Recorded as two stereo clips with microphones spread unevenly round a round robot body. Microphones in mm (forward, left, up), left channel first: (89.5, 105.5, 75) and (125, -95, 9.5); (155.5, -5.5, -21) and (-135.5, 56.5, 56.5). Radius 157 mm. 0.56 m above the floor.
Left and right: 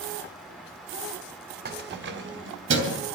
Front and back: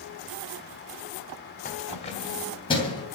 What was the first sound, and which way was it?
Keys jangling, 65° right.